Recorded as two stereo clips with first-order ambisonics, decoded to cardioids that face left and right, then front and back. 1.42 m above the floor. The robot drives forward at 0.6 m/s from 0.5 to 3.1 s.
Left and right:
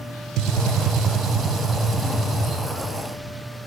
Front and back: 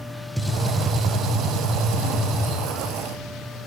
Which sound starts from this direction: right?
A gunshot, at 0.4 s.